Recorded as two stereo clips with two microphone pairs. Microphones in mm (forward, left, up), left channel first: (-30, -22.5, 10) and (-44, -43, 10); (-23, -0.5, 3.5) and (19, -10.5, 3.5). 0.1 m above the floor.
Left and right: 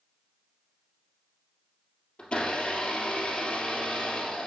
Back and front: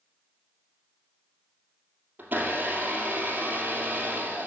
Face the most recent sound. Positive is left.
turn(degrees=25)